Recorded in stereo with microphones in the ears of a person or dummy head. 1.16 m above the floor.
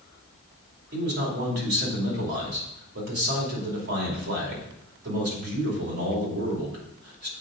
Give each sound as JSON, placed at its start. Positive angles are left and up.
{"t": 0.9, "sound": "a man speaking", "side_deg": -55, "distance_m": 2.5}